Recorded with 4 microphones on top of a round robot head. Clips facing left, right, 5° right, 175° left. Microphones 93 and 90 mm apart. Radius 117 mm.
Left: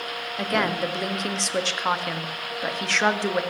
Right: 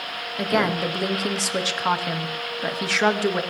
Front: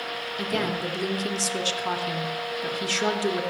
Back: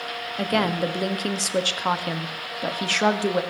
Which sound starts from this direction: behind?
A woman speaking, at 0.4 s.